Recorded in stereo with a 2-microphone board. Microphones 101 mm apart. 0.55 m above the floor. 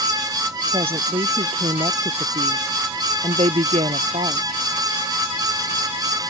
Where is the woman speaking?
65° right (ahead or behind); by 4.6 s 80° right.